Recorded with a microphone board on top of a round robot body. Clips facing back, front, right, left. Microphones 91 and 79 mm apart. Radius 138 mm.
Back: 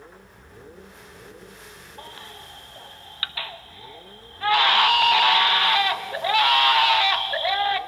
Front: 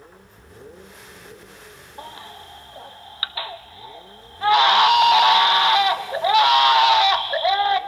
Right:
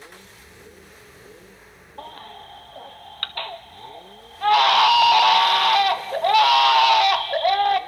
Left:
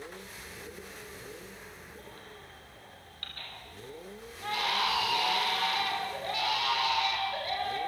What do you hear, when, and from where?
2.0 s a baby crying: 70° right, 0.9 m